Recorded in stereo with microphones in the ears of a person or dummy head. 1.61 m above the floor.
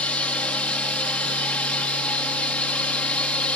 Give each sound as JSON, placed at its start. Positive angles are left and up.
{"t": 0.0, "sound": "a drone", "side_deg": 5}